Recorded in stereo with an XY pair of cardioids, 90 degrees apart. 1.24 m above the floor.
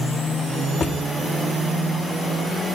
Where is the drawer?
45° left, 2.0 m.